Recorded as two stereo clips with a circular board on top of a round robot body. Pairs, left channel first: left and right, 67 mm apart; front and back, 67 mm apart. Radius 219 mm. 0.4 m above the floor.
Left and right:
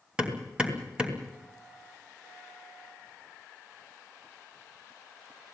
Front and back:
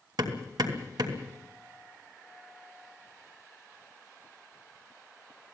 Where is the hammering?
165° right, 3 m.